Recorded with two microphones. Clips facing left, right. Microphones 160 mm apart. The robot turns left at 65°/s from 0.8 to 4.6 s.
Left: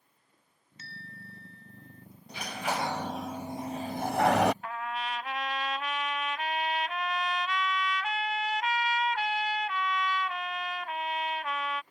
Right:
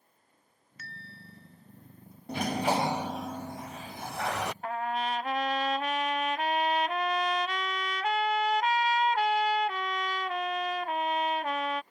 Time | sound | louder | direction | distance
0.8 | a bell | left 1 dB | 155° left | ?
2.3 | a sliding door | right 6 dB | 120° right | ?
4.6 | a trumpet | right 4 dB | 40° right (ahead or behind) | ?